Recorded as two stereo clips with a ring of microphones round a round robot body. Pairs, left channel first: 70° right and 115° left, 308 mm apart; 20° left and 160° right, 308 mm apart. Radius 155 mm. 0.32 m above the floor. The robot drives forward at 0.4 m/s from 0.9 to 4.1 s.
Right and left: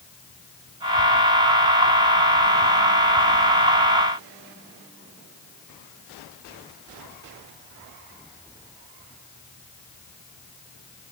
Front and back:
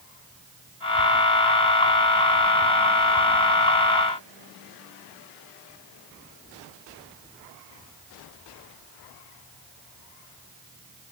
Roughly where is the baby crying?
No baby crying in this recording.